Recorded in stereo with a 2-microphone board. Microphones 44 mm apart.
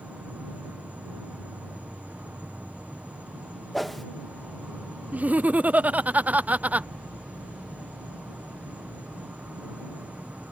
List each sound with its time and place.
0.0 s an insect: 40° right (ahead or behind)
3.7 s a whoosh: 5° left (ahead or behind)
5.1 s laughter: 40° right (ahead or behind)